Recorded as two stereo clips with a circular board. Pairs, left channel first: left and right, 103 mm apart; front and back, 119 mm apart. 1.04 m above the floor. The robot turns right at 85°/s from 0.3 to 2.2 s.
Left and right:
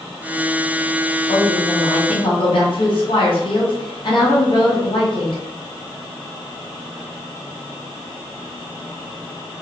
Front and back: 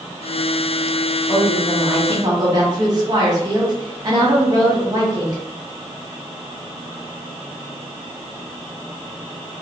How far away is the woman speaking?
About 1.3 m.